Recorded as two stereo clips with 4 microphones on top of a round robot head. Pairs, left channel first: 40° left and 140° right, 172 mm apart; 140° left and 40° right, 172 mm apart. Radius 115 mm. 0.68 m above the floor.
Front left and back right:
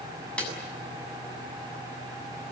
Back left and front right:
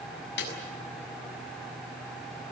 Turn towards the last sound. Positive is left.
turn(degrees=120)